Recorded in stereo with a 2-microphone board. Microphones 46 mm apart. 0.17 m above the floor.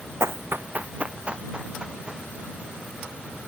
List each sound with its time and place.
0.2 s running footsteps: 75° right (ahead or behind); by 2.3 s 15° right (ahead or behind)